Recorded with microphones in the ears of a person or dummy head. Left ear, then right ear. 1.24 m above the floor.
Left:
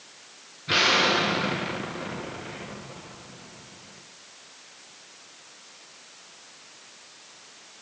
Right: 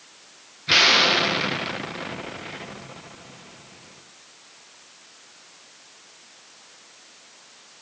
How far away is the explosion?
About 1.0 m.